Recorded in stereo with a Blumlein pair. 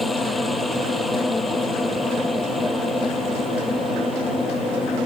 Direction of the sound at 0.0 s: 5° left.